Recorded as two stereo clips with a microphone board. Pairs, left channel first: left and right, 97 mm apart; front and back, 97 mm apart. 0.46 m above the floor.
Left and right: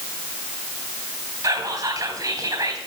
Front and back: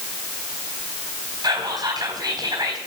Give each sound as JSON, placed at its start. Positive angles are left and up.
{"t": 1.4, "sound": "whispering", "azimuth_deg": -135, "distance_m": 3.0}